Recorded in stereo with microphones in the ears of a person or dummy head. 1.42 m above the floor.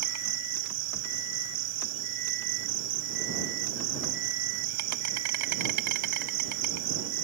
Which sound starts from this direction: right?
An insect, at 0.0 s.